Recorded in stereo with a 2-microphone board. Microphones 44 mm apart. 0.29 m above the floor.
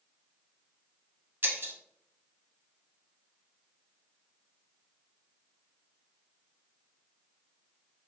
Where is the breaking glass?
55° right (ahead or behind), 0.5 m.